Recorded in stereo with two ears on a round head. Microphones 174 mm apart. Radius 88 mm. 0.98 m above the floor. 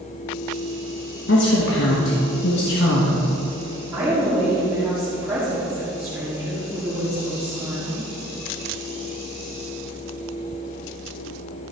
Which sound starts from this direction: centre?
A woman speaking, at 3.9 s.